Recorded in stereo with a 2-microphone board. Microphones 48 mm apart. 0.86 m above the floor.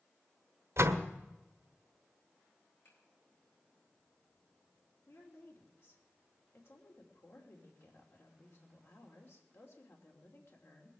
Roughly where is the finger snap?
Left.